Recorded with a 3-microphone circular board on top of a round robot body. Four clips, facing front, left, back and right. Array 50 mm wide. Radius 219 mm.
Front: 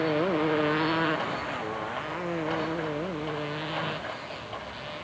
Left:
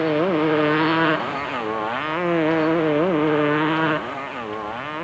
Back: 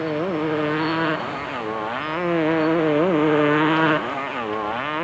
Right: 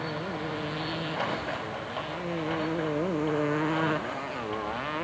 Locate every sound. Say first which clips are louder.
0.0 s a motorcycle: left 14 dB, back 2 dB; 95° left; by 5.0 s 175° left